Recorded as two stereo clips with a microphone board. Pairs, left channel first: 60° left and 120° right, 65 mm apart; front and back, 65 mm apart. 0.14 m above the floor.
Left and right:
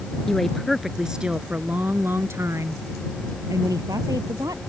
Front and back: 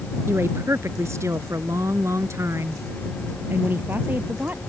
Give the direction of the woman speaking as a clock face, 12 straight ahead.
7 o'clock.